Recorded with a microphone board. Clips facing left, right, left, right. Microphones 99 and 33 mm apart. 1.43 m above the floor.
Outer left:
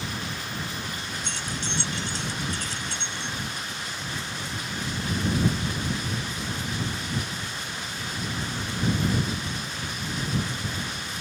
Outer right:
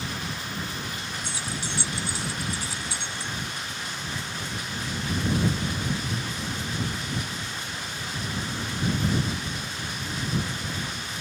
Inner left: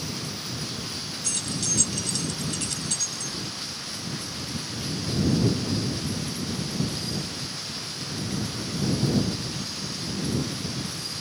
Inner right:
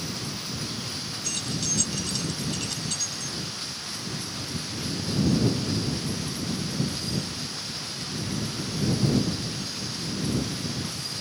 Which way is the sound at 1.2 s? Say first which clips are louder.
Outer left 1 dB, even; 10° right (ahead or behind).